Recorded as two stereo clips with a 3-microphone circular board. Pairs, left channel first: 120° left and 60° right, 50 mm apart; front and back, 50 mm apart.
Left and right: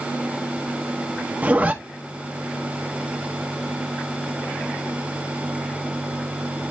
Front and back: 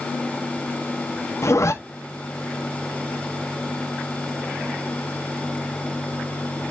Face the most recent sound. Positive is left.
turn(degrees=0)